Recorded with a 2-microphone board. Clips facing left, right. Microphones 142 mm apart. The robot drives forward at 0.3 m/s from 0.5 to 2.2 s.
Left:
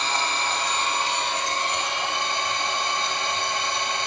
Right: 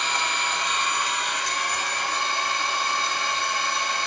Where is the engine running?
30° left (ahead or behind), 0.9 m; by 4.1 s 20° left (ahead or behind), 1.3 m.